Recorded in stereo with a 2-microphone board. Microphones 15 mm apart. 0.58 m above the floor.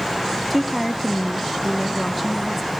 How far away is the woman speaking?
About 0.6 m.